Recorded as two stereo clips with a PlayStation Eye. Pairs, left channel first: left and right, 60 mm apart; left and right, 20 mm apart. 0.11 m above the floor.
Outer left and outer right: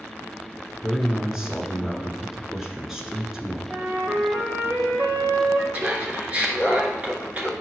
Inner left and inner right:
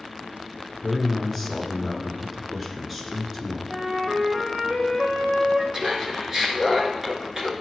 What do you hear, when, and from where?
0.8 s a man speaking: 10° right (ahead or behind), 1.1 m
3.7 s a flute: 50° right (ahead or behind), 2 m
5.7 s laughter: 25° right (ahead or behind), 1.3 m